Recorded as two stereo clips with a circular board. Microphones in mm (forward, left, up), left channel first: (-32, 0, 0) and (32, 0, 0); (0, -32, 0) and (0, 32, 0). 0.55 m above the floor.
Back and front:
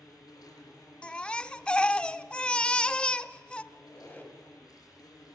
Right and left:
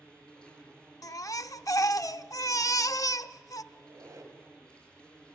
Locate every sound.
0.0 s an insect: 165° right, 5 m
1.0 s a baby crying: 105° right, 0.5 m
3.7 s a squeak: 115° left, 2.5 m